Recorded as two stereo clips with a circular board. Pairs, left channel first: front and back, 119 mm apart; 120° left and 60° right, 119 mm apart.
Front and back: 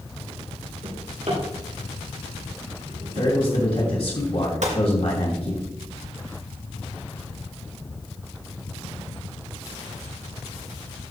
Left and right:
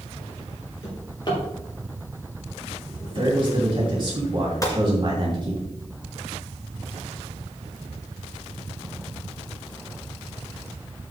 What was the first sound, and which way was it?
A drawer, 170° left.